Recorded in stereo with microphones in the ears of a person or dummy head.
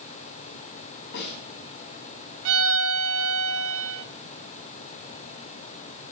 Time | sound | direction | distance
1.1 | a snare drum | 70° left (ahead or behind) | 3.5 m
2.5 | a violin | 85° right | 0.6 m